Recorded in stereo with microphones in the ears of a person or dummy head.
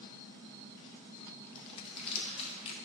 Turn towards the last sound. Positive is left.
turn(degrees=35)  # may be behind; listen again after turning